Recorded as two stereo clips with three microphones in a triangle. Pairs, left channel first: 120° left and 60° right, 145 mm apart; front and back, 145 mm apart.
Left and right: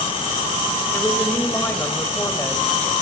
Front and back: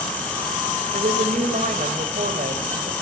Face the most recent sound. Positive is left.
turn(degrees=-165)